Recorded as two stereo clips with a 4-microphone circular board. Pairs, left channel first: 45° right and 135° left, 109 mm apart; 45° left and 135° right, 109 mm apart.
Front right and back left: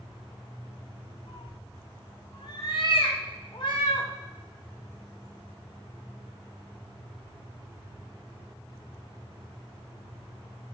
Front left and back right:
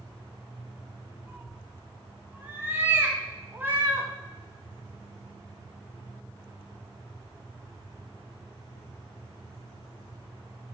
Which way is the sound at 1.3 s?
70° right.